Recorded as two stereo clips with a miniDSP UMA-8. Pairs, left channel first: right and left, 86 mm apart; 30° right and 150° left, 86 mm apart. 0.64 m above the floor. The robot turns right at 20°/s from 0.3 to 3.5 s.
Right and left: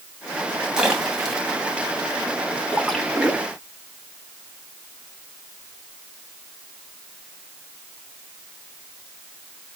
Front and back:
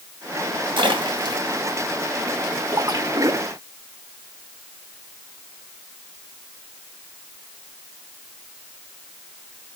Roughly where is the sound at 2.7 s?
Behind.